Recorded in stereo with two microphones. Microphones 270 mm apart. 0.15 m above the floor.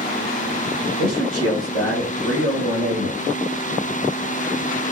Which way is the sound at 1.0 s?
20° left (ahead or behind).